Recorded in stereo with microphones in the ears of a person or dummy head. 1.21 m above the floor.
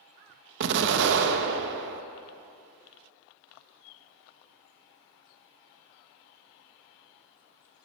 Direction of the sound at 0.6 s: 65° right (ahead or behind).